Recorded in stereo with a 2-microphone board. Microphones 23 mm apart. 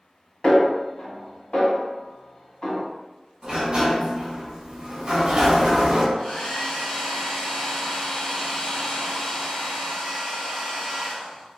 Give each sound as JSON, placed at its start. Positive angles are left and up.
{"t": 0.4, "sound": "a snare drum", "side_deg": 55, "distance_m": 1.8}
{"t": 3.4, "sound": "a sliding door", "side_deg": -40, "distance_m": 1.0}
{"t": 6.2, "sound": "a hair dryer", "side_deg": 75, "distance_m": 1.5}